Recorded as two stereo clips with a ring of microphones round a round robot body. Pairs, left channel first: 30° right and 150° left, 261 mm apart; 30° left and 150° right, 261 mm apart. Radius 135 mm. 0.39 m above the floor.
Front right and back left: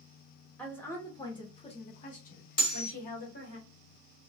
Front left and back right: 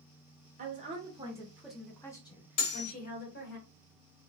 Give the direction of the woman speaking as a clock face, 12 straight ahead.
4 o'clock.